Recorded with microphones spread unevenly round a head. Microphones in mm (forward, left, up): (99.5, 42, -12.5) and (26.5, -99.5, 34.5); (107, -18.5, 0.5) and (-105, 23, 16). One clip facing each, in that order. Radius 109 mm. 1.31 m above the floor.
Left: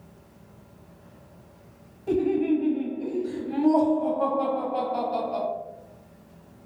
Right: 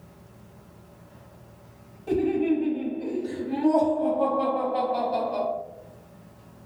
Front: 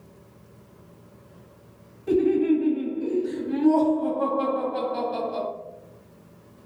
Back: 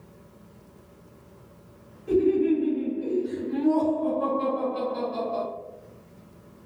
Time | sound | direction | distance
2.1 | laughter | 30° right | 1.4 m